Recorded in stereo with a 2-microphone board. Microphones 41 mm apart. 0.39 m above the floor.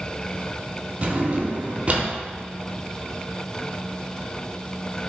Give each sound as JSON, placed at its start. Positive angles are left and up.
{"t": 1.0, "sound": "a drawer", "side_deg": -35, "distance_m": 0.5}